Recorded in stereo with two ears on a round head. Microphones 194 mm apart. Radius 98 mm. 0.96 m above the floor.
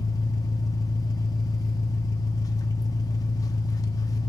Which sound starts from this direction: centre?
An engine running, at 0.0 s.